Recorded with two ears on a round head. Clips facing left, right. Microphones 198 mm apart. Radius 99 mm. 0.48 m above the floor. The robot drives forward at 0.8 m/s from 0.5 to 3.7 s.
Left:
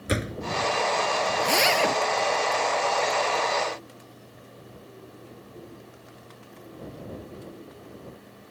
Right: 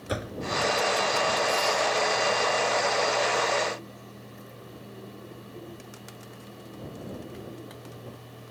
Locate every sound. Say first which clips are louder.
0.1 s a door slam: left 4 dB; 30° left (ahead or behind)
1.4 s a zipper: left 3 dB; 85° left; by 2.0 s 80° left